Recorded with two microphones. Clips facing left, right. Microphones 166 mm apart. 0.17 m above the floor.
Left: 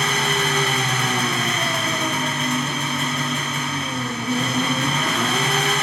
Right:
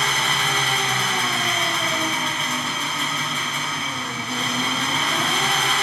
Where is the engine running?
50° left (ahead or behind), 0.8 m.